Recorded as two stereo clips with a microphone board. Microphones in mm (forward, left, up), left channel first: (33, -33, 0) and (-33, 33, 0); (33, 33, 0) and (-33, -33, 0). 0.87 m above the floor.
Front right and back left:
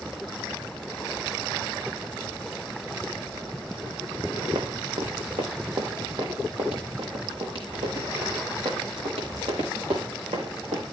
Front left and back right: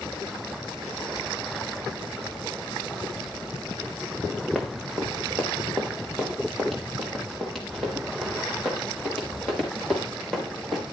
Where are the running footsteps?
135° left, 3 m; by 10.8 s 130° left, 7.5 m.